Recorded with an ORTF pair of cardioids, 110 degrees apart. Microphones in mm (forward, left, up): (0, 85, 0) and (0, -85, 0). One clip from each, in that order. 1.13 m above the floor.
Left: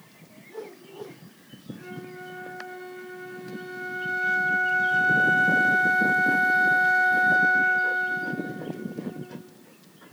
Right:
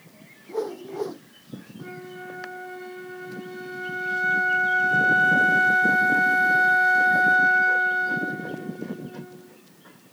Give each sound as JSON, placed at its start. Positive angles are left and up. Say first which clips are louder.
{"t": 0.5, "sound": "a whoosh", "louder": "right 10 dB", "azimuth_deg": -55}
{"t": 1.8, "sound": "a flute", "louder": "right 2 dB", "azimuth_deg": -10}